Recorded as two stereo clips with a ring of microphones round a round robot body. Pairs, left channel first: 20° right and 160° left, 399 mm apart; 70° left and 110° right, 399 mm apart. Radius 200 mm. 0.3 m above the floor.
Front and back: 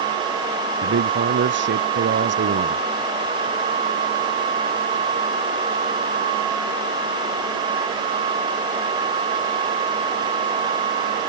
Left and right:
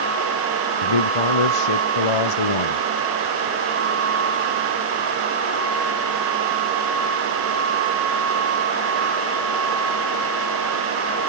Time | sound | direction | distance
0.8 | a man speaking | 95° left | ?